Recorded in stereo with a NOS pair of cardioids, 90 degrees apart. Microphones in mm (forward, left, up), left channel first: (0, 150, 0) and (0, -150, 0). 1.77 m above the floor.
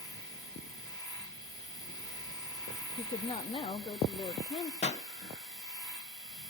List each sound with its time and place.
0.0 s a machine running: straight ahead, 3.5 m
3.0 s a woman speaking: 20° left, 0.6 m
4.8 s a pop: 25° left, 1.8 m